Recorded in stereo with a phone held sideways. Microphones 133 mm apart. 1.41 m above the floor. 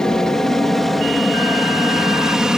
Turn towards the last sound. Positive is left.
turn(degrees=-5)  # may be behind; listen again after turning